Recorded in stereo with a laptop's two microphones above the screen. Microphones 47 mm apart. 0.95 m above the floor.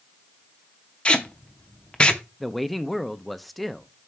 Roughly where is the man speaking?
Centre.